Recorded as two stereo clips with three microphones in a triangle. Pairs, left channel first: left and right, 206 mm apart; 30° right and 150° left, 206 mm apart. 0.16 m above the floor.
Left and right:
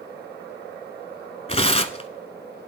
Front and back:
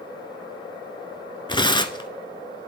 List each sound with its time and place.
1.5 s tearing paper: 30° left, 0.8 m